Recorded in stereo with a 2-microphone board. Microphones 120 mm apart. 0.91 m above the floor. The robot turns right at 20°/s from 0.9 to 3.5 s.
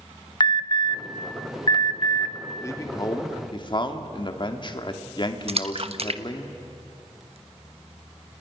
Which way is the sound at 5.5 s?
55° right (ahead or behind).